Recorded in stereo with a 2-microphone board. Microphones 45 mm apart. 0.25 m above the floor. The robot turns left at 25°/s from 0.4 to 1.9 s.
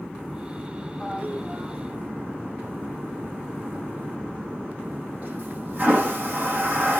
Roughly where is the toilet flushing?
Right.